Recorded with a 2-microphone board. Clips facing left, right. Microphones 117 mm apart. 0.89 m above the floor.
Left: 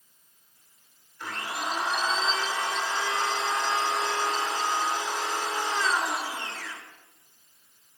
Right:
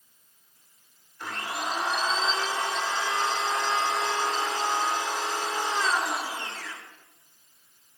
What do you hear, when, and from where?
1.2 s a blender: 25° right (ahead or behind), 3 m